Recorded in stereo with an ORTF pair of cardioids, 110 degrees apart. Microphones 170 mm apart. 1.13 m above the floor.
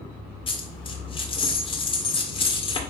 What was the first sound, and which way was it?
A dropped coin, 30° left.